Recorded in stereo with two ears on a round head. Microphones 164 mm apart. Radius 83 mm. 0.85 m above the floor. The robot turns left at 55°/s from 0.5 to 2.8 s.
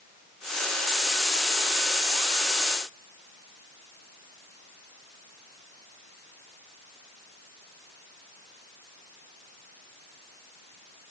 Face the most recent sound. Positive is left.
No sound to turn to.